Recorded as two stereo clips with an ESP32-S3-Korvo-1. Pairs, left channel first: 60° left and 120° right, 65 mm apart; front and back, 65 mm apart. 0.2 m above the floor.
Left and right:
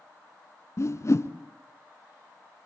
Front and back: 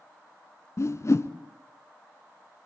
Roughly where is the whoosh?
Ahead left.